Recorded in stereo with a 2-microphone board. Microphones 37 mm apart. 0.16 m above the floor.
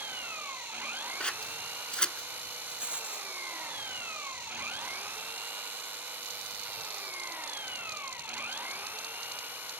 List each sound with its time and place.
0.0 s an engine running: 55° right (ahead or behind)
1.2 s scissors: 25° left (ahead or behind)
2.6 s a rattle: 30° right (ahead or behind)